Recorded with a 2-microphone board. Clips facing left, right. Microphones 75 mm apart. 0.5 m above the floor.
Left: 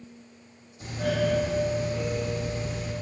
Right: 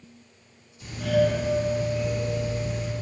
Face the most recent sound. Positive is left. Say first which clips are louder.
# right 4 dB
turn(degrees=40)  # may be behind; listen again after turning